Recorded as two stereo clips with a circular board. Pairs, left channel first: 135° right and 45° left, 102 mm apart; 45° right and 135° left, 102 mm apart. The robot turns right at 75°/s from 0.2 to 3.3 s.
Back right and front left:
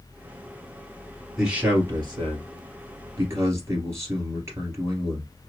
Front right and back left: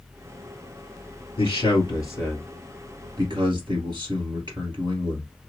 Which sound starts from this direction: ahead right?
A man speaking, at 1.4 s.